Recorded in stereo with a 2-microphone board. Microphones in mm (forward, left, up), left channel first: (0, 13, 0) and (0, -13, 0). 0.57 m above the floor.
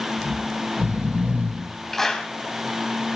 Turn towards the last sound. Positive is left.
turn(degrees=10)  # may be behind; listen again after turning